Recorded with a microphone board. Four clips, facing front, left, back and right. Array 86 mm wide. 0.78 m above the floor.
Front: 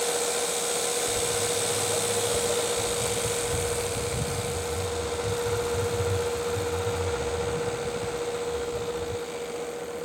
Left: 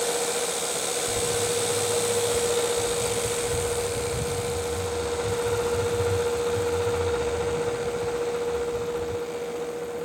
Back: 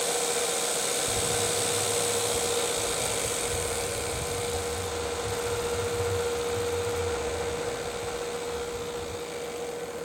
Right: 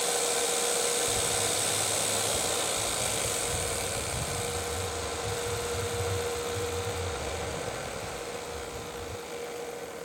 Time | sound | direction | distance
1.1 | footsteps | 150° left | ?